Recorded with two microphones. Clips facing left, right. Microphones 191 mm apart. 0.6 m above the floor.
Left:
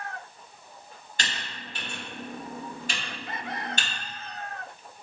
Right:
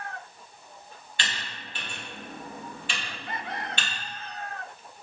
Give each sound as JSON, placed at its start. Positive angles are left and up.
{"t": 1.2, "sound": "typing on a keyboard", "side_deg": 45, "distance_m": 1.5}